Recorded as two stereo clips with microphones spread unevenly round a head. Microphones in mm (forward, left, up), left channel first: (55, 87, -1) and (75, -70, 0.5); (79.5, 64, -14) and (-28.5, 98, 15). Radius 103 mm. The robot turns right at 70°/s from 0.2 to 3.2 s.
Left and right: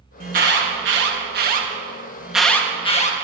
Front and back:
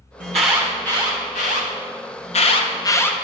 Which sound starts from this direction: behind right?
An alarm, at 0.2 s.